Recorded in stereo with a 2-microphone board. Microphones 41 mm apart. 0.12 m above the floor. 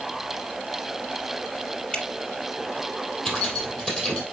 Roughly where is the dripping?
Left.